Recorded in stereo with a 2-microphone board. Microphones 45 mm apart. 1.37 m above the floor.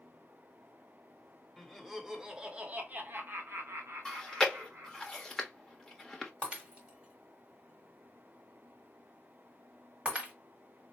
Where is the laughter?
Centre (ahead or behind), 1.1 m; by 5.0 s 85° right, 1.4 m.